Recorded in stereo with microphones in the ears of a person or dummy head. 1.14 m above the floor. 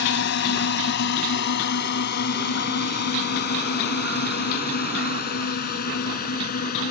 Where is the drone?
60° left (ahead or behind); by 6.9 s 50° left (ahead or behind).